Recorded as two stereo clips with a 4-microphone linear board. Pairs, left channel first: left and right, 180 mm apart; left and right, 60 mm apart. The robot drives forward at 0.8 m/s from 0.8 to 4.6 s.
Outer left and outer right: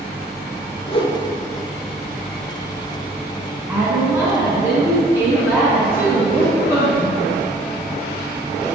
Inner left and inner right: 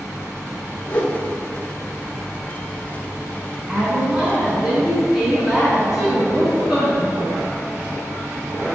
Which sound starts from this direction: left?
A whoosh, at 0.9 s.